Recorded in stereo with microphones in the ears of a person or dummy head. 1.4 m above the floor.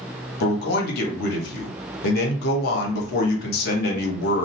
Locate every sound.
0.4 s a man speaking: 60° left (ahead or behind), 1.0 m